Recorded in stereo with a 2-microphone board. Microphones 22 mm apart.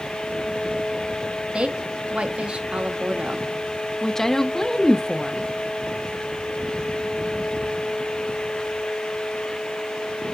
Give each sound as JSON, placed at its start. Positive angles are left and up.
{"t": 1.5, "sound": "a woman speaking", "side_deg": -55, "distance_m": 0.9}
{"t": 4.0, "sound": "a woman speaking", "side_deg": 20, "distance_m": 0.6}